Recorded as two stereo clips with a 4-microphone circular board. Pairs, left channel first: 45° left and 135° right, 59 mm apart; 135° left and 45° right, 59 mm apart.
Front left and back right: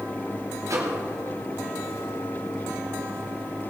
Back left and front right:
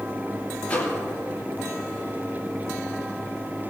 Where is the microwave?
165° right, 4 m.